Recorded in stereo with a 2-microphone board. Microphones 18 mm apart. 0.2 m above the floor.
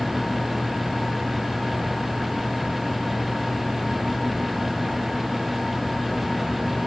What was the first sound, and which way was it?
Only background noise.